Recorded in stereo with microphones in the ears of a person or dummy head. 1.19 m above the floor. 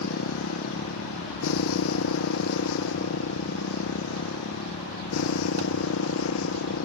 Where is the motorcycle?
80° left; by 6.9 s 90° left.